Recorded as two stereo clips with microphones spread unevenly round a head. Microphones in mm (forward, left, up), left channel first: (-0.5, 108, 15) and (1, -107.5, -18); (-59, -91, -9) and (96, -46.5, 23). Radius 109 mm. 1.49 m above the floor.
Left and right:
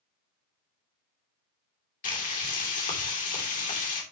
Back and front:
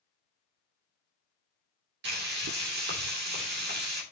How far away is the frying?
About 3 m.